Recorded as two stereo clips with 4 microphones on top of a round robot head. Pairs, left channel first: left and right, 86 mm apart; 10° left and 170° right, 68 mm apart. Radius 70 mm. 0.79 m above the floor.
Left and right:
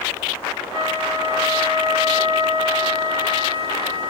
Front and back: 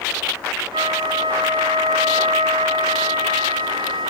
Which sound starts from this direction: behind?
A flute, at 0.7 s.